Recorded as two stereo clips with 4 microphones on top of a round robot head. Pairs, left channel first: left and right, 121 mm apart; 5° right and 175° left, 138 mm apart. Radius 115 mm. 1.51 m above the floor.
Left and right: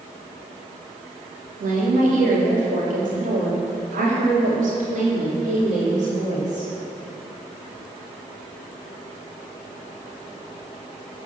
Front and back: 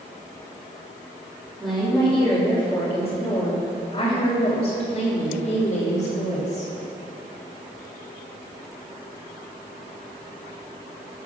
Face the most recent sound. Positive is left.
turn(degrees=-50)